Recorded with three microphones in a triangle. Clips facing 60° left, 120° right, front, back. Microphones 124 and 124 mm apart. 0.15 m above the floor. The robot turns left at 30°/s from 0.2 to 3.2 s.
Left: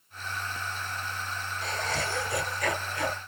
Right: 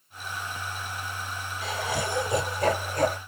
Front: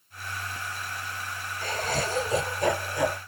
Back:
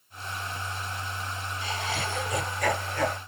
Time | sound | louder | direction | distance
1.6 | laughter | right 3 dB, front 4 dB | 30° right | 2.5 m